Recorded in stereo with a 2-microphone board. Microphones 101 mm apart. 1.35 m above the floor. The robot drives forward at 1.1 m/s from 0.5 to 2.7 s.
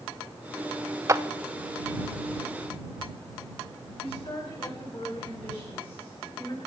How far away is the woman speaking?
About 8.5 m.